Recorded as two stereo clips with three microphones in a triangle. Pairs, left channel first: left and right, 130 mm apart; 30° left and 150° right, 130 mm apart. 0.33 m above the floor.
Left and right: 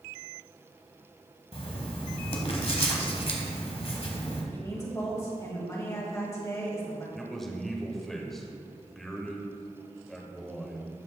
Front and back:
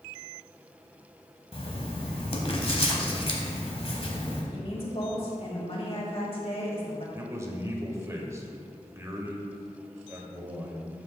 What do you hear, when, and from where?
1.5 s writing: 60° left, 1.2 m
4.5 s a woman speaking: 35° left, 1.7 m
7.2 s a man speaking: 175° left, 1.0 m